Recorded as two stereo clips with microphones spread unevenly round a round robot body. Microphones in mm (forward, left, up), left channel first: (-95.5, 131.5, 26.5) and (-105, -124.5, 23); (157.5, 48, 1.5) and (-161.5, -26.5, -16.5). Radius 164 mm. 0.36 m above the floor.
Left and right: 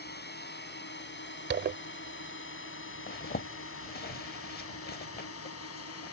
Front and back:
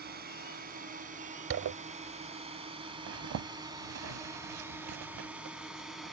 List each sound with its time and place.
0.0 s a drone: 135° left; by 6.1 s 105° left
1.5 s a zipper: 130° right
3.1 s a zipper: 145° left